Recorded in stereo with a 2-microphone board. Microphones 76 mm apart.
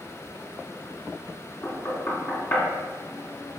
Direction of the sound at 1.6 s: 35° left (ahead or behind).